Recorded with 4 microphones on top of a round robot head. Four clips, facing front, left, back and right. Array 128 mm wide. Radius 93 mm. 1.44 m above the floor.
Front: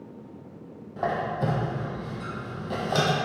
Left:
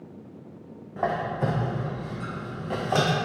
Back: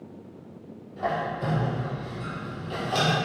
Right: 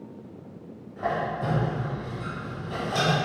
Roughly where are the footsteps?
I don't hear footsteps.